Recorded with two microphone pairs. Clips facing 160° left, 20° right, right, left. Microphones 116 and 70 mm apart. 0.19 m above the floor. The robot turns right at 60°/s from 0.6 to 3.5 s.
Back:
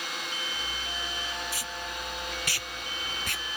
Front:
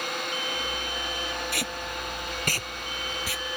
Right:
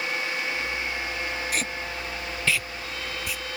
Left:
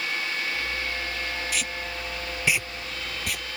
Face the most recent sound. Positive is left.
turn(degrees=80)